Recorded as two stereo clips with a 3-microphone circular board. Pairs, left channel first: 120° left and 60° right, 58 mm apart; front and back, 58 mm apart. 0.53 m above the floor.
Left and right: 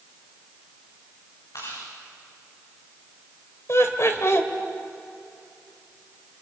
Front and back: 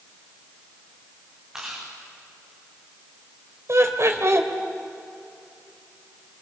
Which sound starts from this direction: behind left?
Laughter, at 3.7 s.